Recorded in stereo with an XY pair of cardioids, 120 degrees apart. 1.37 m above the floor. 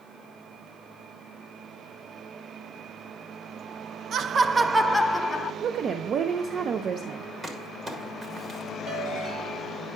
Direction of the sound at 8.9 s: 60° right.